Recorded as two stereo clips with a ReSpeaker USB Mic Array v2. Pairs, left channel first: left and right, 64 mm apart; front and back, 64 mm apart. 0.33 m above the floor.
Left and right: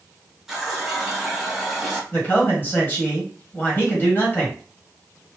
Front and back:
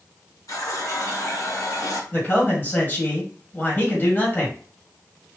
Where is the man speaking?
45° left, 1.9 m.